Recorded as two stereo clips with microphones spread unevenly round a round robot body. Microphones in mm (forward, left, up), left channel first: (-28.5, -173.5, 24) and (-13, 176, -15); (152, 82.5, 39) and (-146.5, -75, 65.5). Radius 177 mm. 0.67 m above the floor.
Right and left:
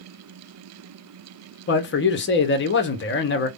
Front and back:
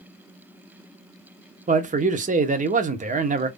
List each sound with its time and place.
1.7 s a man speaking: 105° right, 0.6 m